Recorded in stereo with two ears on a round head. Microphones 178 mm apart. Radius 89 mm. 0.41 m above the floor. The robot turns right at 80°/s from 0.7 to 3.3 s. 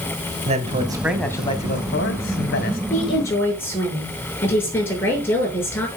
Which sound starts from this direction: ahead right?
A man speaking, at 0.5 s.